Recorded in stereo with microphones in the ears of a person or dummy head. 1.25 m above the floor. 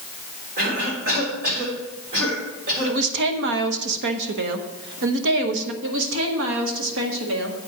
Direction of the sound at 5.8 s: 70° right (ahead or behind).